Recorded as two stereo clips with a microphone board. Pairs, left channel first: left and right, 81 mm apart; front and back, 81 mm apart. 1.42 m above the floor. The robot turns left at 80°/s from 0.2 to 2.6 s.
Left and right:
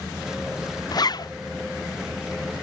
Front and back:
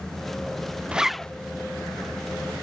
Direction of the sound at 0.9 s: 105° left.